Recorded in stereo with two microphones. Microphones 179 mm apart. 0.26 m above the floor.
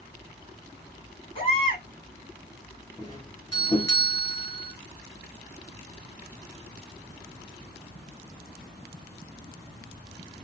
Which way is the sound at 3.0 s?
25° left (ahead or behind).